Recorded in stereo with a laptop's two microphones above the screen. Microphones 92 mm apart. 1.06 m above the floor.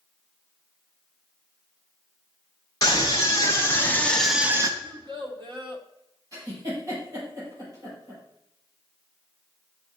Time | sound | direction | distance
2.8 | a scream | 40° left (ahead or behind) | 2.5 m
4.8 | a child speaking | 55° right (ahead or behind) | 1.3 m
6.3 | a giggle | 35° right (ahead or behind) | 5 m